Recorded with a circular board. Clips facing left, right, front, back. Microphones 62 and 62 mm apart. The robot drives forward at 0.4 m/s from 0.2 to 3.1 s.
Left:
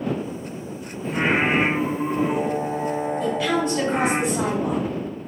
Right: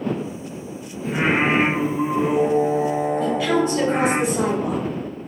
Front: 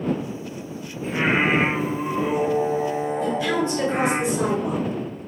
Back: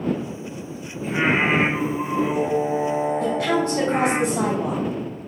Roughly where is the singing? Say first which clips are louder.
Right 1 dB, back 1 dB; right.